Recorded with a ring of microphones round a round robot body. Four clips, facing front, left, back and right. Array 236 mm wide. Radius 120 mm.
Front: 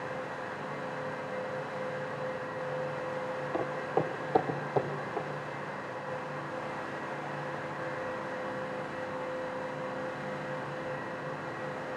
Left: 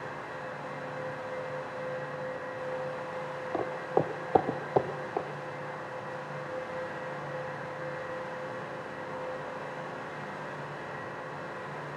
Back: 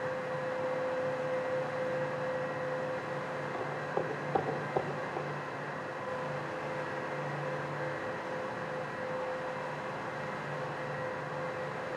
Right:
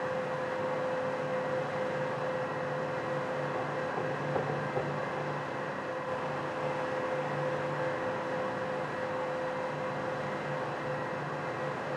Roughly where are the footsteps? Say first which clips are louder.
Left 4 dB, front 5 dB; ahead left.